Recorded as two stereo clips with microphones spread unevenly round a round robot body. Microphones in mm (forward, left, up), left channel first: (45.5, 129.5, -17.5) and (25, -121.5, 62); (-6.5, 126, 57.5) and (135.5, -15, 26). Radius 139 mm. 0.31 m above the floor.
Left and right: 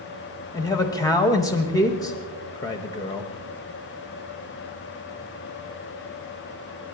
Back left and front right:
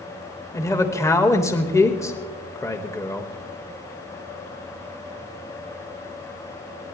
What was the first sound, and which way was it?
A man speaking, 55° left.